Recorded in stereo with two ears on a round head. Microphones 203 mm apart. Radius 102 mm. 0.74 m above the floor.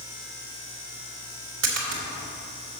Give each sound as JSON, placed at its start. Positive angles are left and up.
{"t": 1.6, "sound": "a splash", "side_deg": -65, "distance_m": 2.0}